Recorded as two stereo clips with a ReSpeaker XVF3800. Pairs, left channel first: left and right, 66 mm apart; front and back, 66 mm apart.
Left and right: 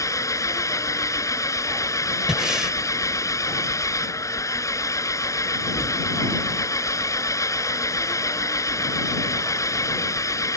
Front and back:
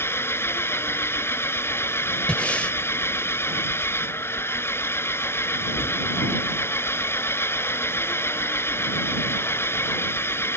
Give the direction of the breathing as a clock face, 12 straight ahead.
1 o'clock.